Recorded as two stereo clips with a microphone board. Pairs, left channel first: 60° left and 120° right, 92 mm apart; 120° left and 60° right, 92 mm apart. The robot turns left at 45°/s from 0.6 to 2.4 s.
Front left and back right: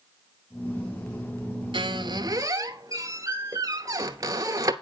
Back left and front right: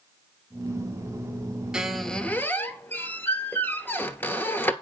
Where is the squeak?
140° right, 0.9 m; by 4.7 s 170° right, 0.9 m.